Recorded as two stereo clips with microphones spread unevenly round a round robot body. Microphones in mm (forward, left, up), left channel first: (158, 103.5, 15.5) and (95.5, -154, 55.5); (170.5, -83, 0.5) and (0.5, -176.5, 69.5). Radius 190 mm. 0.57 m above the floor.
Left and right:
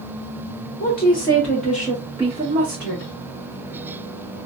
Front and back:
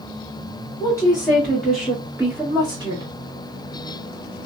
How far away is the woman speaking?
About 1.4 m.